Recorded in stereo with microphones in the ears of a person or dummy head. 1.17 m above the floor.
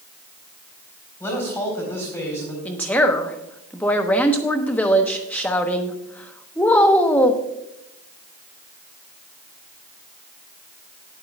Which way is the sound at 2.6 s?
10° left (ahead or behind).